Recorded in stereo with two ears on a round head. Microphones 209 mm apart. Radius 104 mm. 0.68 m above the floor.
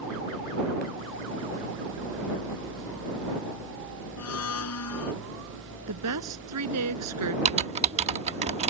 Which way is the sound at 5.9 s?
80° right.